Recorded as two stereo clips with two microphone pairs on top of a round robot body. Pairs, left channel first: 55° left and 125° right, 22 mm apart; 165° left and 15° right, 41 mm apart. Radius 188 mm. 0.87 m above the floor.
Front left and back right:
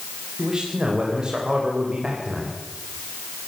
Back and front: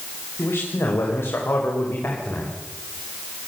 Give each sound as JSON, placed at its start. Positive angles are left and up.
{"t": 0.4, "sound": "a man speaking", "azimuth_deg": 170, "distance_m": 4.5}